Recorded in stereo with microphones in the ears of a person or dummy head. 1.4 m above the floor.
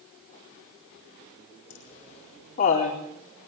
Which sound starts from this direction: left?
Laughter, at 1.7 s.